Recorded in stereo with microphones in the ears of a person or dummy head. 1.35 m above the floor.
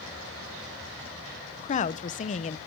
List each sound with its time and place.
1.6 s a woman speaking: 40° left (ahead or behind), 1.0 m